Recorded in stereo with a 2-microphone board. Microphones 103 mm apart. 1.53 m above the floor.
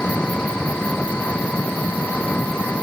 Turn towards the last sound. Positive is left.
turn(degrees=10)  # may be behind; listen again after turning